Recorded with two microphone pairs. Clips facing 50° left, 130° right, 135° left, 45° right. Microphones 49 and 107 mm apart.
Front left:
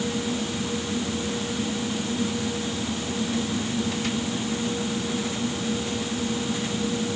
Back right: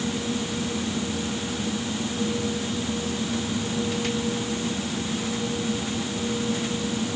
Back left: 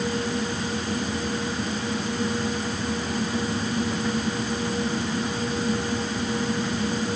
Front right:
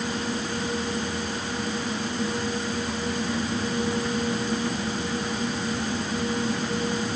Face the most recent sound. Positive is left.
No sound to turn to.